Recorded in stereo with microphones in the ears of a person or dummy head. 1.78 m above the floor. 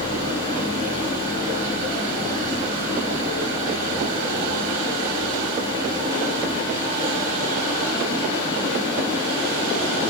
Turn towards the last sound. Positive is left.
turn(degrees=30)  # may be behind; listen again after turning